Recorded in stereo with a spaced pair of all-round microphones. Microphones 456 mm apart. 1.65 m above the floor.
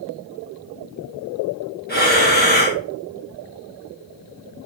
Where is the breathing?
20° left (ahead or behind), 0.9 m.